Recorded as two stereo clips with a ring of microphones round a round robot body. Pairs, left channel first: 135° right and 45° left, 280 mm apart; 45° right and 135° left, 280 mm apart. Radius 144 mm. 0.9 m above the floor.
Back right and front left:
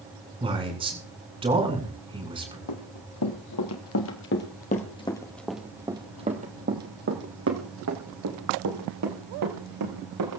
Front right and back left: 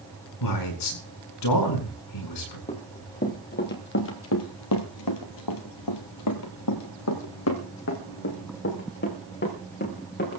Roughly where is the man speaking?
Ahead right.